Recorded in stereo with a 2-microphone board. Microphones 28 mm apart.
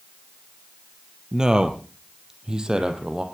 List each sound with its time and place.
1.3 s a man speaking: 20° right (ahead or behind), 2.5 m; by 3.2 s 25° right (ahead or behind), 3.5 m